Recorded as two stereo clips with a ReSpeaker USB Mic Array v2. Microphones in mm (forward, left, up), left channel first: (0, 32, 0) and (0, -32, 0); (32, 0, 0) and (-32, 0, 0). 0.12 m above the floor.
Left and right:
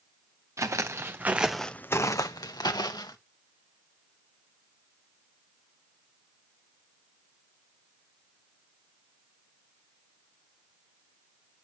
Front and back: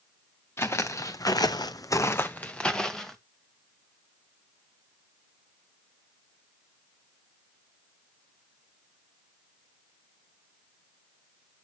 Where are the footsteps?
50° right, 1.2 m; by 3.2 s 85° left, 1.4 m.